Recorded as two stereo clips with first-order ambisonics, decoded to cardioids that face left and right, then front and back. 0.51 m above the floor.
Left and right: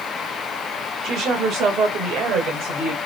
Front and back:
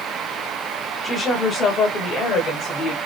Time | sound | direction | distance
1.0 | a woman speaking | 60° right | 1.2 m